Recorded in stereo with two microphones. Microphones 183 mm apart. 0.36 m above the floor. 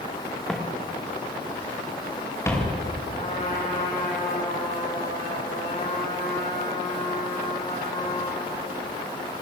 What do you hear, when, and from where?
0.5 s footsteps: 5° left (ahead or behind), 3.5 m; by 2.7 s 15° left (ahead or behind), 6 m
3.1 s a trumpet: 45° left (ahead or behind), 7.5 m